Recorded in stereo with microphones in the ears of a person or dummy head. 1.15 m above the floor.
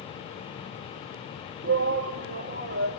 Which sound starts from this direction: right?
A shout, at 1.6 s.